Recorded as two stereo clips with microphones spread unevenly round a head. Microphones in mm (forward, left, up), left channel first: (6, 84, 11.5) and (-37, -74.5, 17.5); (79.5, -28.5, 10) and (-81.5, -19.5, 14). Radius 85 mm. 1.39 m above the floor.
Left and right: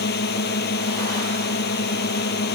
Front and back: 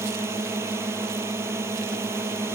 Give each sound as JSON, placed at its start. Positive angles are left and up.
{"t": 0.0, "sound": "a drone", "azimuth_deg": 100}